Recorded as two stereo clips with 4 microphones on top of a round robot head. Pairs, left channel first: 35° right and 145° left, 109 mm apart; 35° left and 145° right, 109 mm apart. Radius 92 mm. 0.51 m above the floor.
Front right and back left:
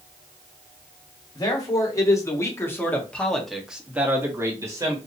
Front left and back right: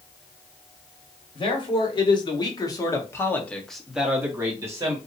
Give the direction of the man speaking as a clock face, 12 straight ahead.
12 o'clock.